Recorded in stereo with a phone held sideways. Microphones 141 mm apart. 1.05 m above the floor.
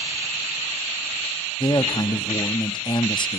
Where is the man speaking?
35° left (ahead or behind), 0.7 m.